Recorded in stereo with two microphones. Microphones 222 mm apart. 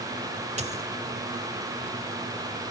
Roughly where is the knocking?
I don't hear knocking.